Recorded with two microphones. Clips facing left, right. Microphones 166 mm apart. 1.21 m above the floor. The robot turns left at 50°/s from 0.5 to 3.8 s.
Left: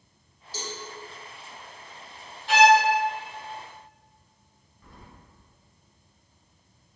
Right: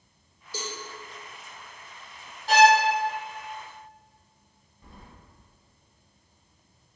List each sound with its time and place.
0.5 s a cowbell: 60° right (ahead or behind), 1.0 m; by 0.8 s 50° right (ahead or behind), 1.0 m
2.5 s a violin: 40° right (ahead or behind), 0.6 m; by 2.8 s 45° right (ahead or behind), 0.6 m
4.8 s keys jangling: 25° right (ahead or behind), 0.7 m